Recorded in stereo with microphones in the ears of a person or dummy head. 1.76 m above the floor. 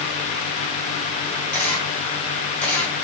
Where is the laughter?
I don't hear laughter.